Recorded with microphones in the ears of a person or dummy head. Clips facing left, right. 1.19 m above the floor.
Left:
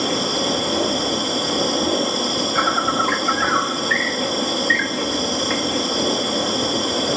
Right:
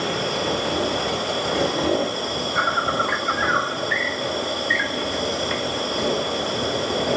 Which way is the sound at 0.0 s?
65° left (ahead or behind).